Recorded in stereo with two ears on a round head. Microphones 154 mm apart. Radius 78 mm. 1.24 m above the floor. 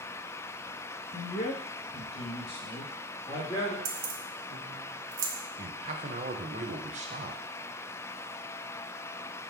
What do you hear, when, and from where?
1.1 s a man speaking: 50° left (ahead or behind), 1.2 m; by 3.8 s 25° left (ahead or behind), 3 m
3.9 s keys jangling: 75° right (ahead or behind), 1.0 m
5.6 s a man speaking: 40° right (ahead or behind), 1.0 m